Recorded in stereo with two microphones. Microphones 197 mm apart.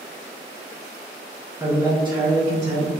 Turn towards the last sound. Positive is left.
turn(degrees=-40)  # may be behind; listen again after turning